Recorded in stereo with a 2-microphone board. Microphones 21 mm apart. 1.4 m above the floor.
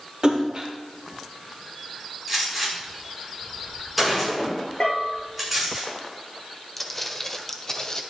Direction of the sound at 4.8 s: 40° left (ahead or behind).